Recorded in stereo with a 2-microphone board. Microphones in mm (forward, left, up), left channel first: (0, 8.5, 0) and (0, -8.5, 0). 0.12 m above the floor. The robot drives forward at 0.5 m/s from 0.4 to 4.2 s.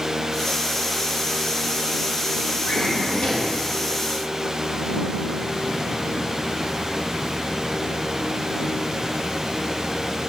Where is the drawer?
65° left (ahead or behind), 1.8 m.